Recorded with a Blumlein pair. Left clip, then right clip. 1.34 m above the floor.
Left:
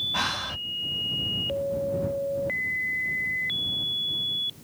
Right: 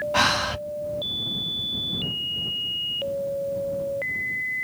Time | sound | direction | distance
0.1 | breathing | 20° right | ?